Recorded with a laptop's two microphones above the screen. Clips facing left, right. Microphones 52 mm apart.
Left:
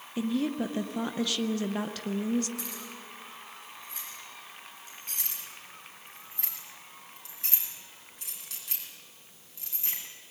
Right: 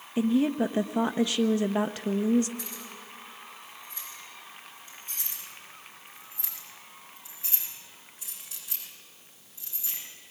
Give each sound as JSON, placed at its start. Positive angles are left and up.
{"t": 0.2, "sound": "a woman speaking", "side_deg": -20, "distance_m": 0.5}
{"t": 2.6, "sound": "keys jangling", "side_deg": 85, "distance_m": 8.5}
{"t": 5.2, "sound": "keys jangling", "side_deg": 70, "distance_m": 6.5}